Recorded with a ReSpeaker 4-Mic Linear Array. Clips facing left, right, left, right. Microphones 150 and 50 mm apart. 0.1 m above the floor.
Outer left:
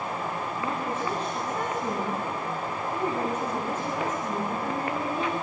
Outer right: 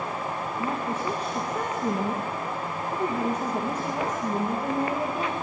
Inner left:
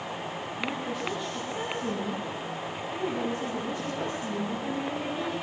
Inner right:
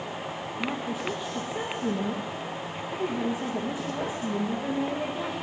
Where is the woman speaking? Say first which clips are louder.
Outer right 1 dB, inner right 1 dB; 10° right (ahead or behind), 6 m.